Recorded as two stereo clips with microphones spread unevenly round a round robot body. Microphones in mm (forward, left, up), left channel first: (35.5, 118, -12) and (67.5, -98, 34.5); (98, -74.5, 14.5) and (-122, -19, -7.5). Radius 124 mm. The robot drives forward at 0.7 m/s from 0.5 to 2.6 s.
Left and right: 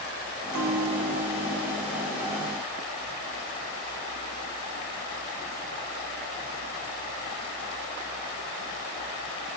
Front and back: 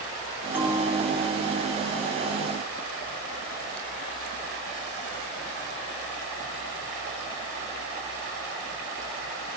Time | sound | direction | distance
0.5 | a bell | 110° right | 7.5 m